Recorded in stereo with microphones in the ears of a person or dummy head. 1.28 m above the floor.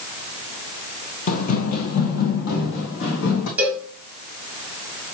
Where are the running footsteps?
40° left (ahead or behind), 2 m; by 3.5 s 70° left (ahead or behind), 4.5 m.